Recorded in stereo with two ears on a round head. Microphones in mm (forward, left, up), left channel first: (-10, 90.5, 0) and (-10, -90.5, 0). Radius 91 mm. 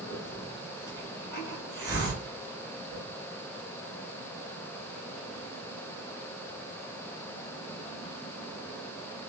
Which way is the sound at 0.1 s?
25° right (ahead or behind).